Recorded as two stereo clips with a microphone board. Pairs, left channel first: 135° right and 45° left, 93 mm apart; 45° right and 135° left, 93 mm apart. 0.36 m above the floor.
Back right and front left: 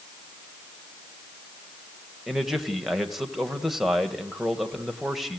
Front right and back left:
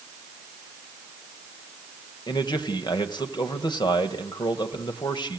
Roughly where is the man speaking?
Ahead right.